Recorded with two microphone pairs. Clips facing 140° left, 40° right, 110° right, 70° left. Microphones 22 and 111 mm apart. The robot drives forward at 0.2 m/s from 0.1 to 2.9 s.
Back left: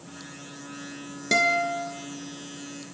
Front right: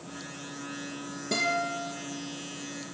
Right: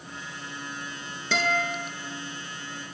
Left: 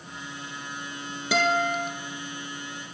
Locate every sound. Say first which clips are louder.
1.3 s a guitar: back left 6 dB, left 3 dB; 150° left, 1.4 m; by 1.9 s 155° left, 1.5 m